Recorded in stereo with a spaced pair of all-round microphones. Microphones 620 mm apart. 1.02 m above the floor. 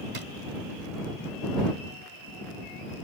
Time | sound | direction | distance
0.1 | a drawer | 55° right (ahead or behind) | ?